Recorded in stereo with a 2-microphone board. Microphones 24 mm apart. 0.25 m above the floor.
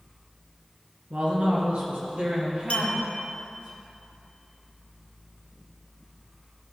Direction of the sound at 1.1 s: 70° right (ahead or behind).